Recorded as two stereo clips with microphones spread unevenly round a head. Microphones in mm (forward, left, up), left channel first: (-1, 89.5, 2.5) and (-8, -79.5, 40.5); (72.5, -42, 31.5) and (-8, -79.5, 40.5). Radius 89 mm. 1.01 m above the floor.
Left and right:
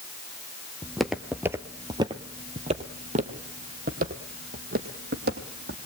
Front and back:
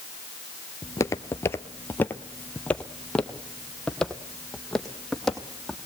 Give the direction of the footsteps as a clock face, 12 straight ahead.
12 o'clock.